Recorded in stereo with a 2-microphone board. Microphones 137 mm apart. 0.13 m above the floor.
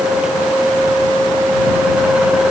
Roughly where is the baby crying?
I don't hear a baby crying.